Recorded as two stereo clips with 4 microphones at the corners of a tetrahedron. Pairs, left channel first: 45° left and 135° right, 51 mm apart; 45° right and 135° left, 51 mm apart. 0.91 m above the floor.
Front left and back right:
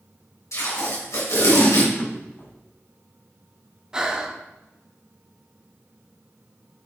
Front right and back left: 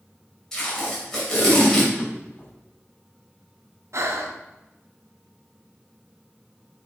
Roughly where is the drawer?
Ahead.